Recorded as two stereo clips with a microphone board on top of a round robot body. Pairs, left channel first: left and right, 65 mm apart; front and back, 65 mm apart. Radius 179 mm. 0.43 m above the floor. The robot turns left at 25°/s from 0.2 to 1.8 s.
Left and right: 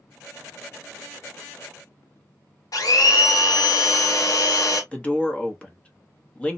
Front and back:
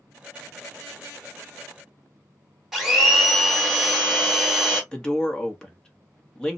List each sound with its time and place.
2.7 s a blender: 95° left, 1.3 m
4.9 s a man speaking: 55° left, 1.1 m